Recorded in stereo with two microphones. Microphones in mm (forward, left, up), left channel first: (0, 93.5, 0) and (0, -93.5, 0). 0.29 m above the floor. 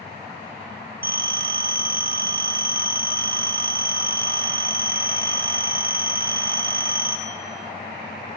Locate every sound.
1.0 s a phone ringing: 55° right (ahead or behind), 1.6 m